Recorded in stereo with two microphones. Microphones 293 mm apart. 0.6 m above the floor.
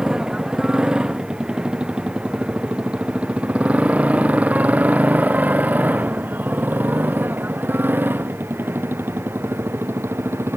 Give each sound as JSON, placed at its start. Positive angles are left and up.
{"t": 0.0, "sound": "a motorcycle", "side_deg": -5}